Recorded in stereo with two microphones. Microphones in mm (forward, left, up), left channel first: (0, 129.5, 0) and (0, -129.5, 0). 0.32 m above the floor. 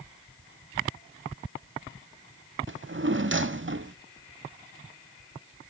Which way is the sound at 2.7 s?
50° right (ahead or behind).